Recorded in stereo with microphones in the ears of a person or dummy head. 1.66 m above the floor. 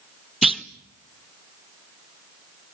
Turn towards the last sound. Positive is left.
turn(degrees=0)  # may be behind; listen again after turning